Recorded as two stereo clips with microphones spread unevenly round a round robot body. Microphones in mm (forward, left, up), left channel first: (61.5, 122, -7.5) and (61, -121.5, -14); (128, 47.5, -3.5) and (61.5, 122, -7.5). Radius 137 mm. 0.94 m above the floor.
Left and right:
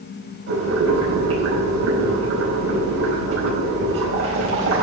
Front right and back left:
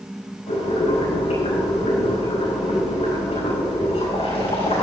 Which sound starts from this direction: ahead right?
Boiling, at 0.5 s.